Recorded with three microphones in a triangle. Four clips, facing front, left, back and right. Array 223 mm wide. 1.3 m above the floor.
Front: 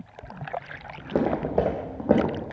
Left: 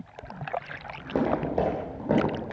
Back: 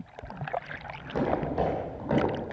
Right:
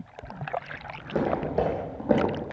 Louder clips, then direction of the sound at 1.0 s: Left 1 dB, front 4 dB; 20° left.